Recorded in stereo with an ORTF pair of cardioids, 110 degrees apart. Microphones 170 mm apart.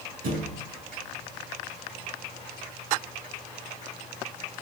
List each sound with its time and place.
0.2 s a thud: 60° right, 6.5 m